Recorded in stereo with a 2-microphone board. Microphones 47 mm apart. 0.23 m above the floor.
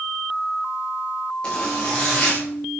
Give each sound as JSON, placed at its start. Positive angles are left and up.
{"t": 1.4, "sound": "a zipper", "side_deg": 20, "distance_m": 7.5}